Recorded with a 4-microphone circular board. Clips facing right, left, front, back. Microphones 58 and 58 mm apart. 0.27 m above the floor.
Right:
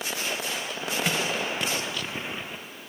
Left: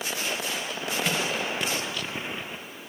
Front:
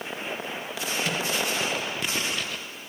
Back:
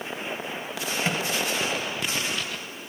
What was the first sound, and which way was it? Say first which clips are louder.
A microwave: even, back 2 dB; 165° right.